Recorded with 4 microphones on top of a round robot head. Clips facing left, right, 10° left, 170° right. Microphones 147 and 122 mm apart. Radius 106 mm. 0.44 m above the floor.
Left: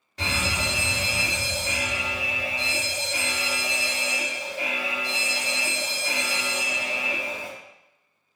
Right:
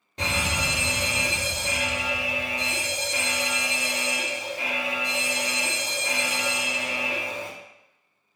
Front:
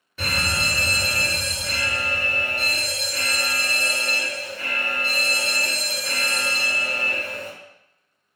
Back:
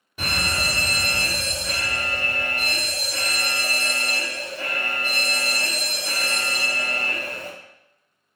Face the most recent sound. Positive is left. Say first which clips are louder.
# right 1 dB, even
turn(degrees=-115)